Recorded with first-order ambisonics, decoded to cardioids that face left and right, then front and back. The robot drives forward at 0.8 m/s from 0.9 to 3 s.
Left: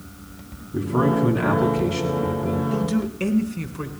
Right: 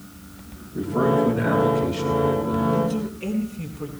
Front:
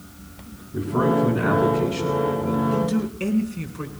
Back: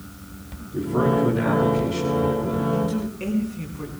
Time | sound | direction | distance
0.7 | a man speaking | 95° left | 7.5 m
2.7 | a man speaking | 70° left | 4 m